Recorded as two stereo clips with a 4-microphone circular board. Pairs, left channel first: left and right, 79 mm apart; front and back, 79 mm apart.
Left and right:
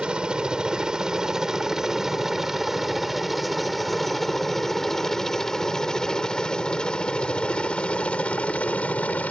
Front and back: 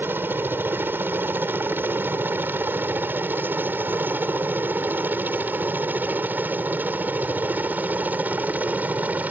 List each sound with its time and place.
0.0 s a helicopter: 155° right; by 9.3 s 140° left